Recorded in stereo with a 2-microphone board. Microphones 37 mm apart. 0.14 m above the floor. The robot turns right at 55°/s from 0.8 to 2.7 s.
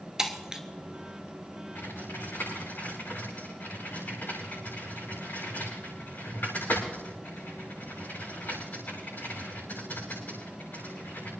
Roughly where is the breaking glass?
Centre.